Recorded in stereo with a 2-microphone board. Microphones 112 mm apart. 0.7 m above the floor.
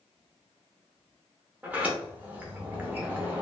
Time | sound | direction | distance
1.6 | a sliding door | 15° right (ahead or behind) | 0.6 m